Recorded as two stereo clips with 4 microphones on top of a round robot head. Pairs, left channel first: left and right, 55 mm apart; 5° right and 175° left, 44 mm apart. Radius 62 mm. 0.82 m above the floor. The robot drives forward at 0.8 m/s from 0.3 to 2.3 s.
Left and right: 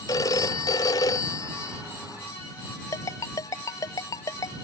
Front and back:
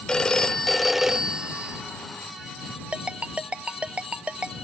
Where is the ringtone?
110° left.